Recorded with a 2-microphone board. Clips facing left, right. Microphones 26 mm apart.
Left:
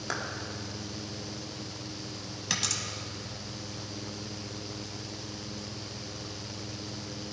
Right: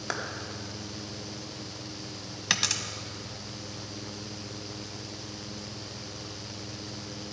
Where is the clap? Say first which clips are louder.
Right 1 dB; 15° right (ahead or behind), 1.7 m.